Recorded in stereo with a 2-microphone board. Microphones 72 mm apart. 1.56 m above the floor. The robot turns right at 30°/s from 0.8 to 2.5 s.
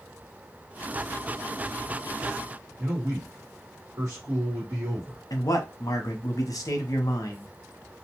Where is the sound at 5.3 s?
60° left (ahead or behind), 0.8 m.